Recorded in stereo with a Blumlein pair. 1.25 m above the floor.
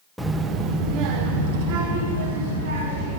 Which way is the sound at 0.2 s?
Straight ahead.